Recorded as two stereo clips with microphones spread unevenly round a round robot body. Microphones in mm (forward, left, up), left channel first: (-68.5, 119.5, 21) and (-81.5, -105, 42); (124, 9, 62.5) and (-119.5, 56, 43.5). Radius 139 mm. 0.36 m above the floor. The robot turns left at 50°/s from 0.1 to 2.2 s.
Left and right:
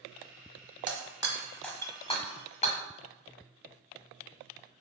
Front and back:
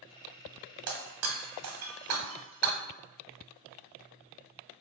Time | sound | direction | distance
0.9 | breaking glass | 150° right | 1.2 m